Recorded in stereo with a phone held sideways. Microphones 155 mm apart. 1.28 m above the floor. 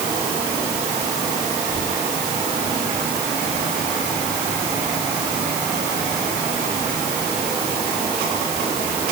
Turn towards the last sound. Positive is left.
No sound to turn to.